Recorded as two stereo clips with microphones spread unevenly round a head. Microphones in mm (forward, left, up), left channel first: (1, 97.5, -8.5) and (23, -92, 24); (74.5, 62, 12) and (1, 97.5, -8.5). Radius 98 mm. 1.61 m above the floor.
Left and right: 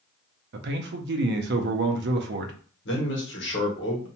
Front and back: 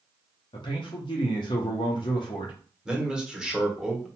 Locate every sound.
0.5 s a man speaking: 55° right, 0.5 m
2.9 s a man speaking: 65° left, 1.2 m